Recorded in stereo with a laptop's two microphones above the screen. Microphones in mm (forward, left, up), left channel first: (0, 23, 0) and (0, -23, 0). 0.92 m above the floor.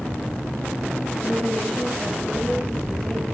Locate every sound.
1.2 s a woman speaking: 30° left (ahead or behind), 5 m